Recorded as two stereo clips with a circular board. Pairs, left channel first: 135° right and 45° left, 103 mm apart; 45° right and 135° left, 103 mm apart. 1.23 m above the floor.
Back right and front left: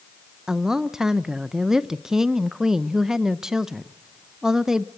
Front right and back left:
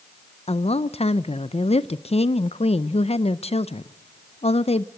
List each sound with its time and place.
0.5 s a woman speaking: 40° right, 0.5 m